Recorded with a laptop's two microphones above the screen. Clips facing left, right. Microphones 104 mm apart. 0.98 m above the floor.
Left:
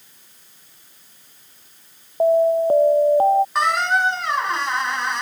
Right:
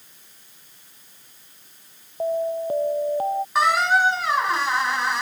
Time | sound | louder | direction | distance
2.2 | an alarm | left 8 dB | 40° left (ahead or behind) | ?
3.5 | a squeak | even | 5° right (ahead or behind) | ?